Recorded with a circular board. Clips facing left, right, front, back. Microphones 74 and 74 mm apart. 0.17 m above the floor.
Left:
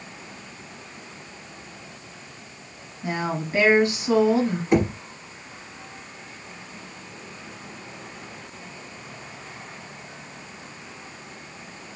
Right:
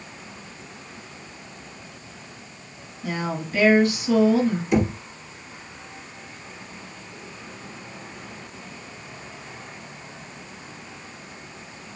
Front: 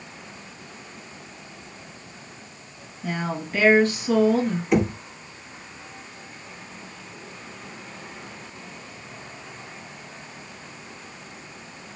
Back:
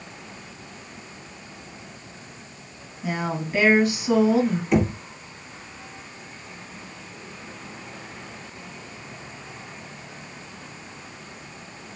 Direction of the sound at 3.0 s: 110° left.